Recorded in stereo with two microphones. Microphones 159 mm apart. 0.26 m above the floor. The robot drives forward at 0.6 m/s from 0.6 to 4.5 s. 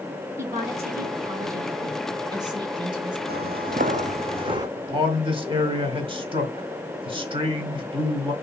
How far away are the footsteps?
About 0.7 m.